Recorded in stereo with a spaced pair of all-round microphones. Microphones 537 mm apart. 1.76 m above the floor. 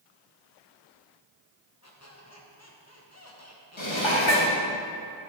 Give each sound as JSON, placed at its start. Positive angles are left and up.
{"t": 1.8, "sound": "a squeak", "side_deg": 25, "distance_m": 1.2}
{"t": 3.8, "sound": "dishes clattering", "side_deg": 55, "distance_m": 1.6}